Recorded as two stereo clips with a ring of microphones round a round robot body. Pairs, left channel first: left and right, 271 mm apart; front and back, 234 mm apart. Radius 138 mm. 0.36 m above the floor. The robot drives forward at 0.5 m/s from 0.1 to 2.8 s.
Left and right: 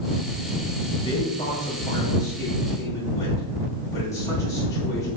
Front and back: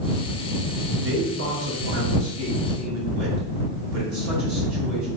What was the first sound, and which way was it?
A man speaking, 160° left.